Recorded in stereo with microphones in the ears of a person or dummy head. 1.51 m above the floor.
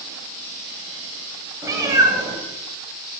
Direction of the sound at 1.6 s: 20° right (ahead or behind).